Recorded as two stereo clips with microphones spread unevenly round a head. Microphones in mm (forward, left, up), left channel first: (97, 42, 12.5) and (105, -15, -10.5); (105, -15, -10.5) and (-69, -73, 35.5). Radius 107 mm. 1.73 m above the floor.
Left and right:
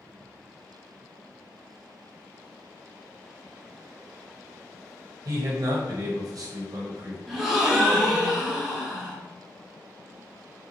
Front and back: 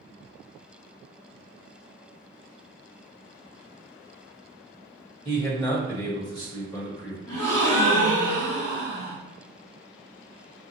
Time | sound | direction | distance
5.2 | a man speaking | 55° right | 1.0 m
7.3 | a gasp | 35° left | 1.3 m